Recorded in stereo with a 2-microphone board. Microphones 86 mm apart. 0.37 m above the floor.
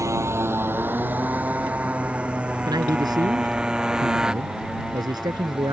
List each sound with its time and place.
0.0 s a motorcycle: 35° right (ahead or behind); by 5.7 s 5° right (ahead or behind)
2.7 s a man speaking: 55° right (ahead or behind)